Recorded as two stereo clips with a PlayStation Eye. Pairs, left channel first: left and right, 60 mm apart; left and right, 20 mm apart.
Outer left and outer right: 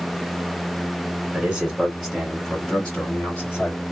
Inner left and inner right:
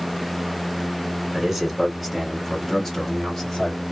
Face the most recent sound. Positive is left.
turn(degrees=30)  # may be behind; listen again after turning